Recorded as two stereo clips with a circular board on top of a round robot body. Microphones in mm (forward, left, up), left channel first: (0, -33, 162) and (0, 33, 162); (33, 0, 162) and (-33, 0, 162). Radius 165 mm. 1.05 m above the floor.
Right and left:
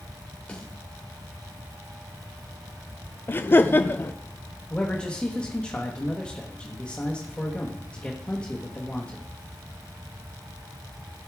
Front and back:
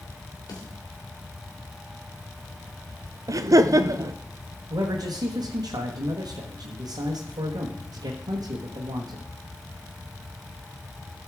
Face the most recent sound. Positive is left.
turn(degrees=-165)